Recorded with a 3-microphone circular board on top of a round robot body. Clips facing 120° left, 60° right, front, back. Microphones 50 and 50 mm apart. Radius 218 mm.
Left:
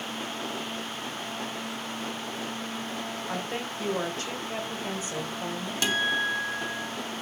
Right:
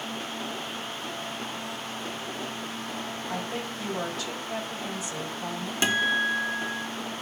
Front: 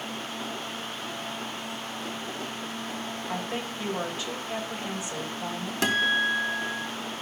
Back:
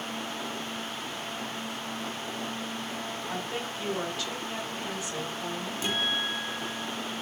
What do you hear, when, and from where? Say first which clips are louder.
3.3 s a woman speaking: even, front 3 dB; 70° left, 5 m
5.8 s a guitar: right 2 dB, front 7 dB; 10° left, 2.5 m